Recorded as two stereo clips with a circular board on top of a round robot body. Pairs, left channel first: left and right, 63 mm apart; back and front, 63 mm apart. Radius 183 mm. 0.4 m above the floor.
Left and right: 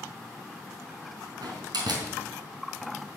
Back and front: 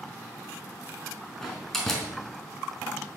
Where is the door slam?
95° right, 4 m.